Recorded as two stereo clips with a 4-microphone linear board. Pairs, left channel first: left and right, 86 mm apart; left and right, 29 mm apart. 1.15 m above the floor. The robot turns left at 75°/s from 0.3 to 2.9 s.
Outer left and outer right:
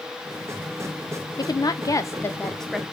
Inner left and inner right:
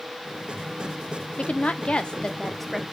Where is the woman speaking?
100° left, 0.6 m; by 2.8 s 10° right, 0.6 m.